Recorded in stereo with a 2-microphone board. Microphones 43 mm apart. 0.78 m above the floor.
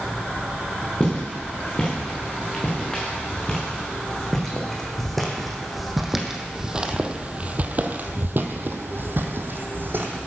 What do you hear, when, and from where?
1.0 s footsteps: 20° left (ahead or behind), 4.5 m; by 10.2 s 50° right (ahead or behind), 1.8 m